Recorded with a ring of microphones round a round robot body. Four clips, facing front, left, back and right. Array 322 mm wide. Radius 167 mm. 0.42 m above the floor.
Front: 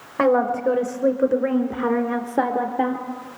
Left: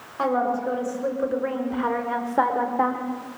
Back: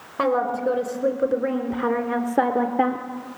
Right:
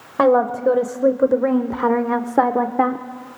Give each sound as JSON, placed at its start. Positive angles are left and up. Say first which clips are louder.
{"t": 0.2, "sound": "a woman speaking", "louder": "right 8 dB, front 3 dB", "azimuth_deg": -75, "distance_m": 2.5}